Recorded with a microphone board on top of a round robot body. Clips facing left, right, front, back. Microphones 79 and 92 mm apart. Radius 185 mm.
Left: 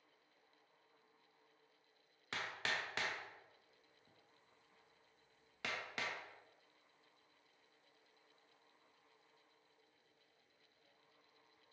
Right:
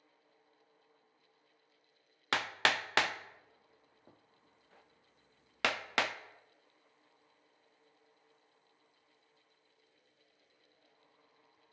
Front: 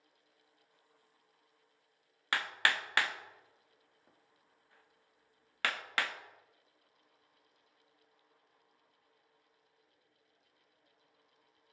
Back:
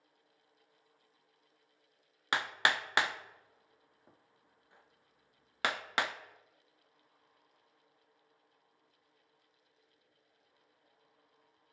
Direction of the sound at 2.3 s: 110° right.